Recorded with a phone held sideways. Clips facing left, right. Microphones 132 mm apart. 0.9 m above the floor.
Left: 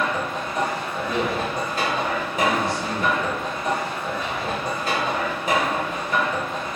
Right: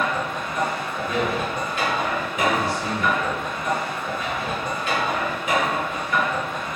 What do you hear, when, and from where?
0.0 s a machine running: 35° left (ahead or behind), 0.7 m
1.0 s a man speaking: 20° left (ahead or behind), 1.0 m